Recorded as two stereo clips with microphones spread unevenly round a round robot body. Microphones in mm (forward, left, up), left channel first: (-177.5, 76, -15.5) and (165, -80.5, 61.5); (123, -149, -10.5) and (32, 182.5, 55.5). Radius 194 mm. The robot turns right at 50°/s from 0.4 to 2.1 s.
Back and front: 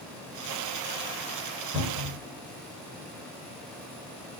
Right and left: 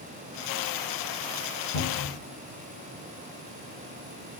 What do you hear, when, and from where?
1.7 s a cupboard door: 80° right, 1.9 m; by 2.2 s 60° right, 1.9 m